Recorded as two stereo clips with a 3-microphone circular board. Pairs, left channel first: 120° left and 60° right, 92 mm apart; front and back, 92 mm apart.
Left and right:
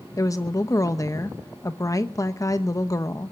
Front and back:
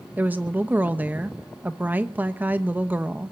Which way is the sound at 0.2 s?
120° left.